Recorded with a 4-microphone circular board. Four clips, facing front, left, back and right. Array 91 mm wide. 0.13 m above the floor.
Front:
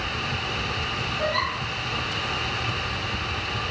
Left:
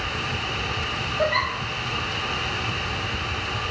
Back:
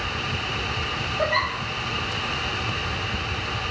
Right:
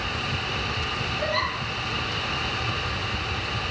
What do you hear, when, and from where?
1.2 s a giggle: 145° left, 6 m